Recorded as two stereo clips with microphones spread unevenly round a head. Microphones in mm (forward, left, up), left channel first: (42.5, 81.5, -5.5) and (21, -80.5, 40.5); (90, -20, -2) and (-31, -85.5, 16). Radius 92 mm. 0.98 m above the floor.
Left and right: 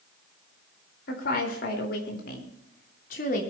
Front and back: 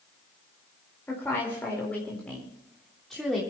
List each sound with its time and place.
1.1 s a woman speaking: 110° left, 4 m; by 3.4 s 120° left, 3 m